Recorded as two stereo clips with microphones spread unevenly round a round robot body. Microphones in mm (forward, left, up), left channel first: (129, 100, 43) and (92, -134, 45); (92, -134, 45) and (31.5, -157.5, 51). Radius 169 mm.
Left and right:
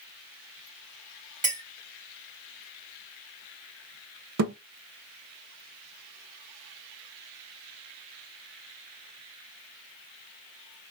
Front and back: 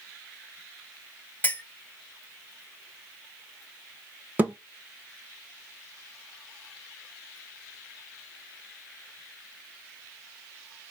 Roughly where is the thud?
Right.